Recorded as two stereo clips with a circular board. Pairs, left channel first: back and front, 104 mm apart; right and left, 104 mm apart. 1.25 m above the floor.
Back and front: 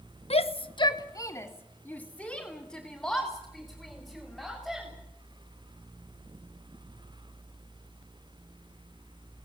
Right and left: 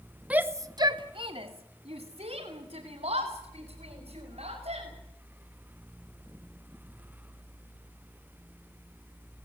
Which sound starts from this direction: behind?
A shout, at 0.3 s.